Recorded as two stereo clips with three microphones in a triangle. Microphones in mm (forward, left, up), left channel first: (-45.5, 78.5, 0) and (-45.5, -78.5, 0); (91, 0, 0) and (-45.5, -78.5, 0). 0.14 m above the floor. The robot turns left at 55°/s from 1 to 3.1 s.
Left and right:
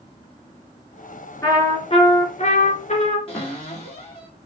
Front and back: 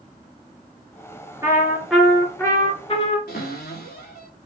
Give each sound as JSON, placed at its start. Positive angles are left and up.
{"t": 1.4, "sound": "a trumpet", "azimuth_deg": 155, "distance_m": 2.5}
{"t": 3.3, "sound": "a cupboard door", "azimuth_deg": 35, "distance_m": 4.5}